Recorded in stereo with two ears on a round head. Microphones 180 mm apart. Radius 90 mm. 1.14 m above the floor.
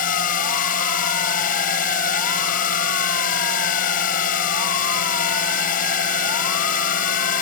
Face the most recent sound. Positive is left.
turn(degrees=45)  # may be behind; listen again after turning